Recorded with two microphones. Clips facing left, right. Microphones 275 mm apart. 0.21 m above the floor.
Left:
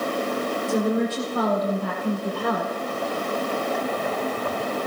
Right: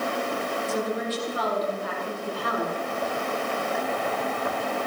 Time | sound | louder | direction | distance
0.7 | a woman speaking | left 7 dB | 50° left (ahead or behind) | 7 m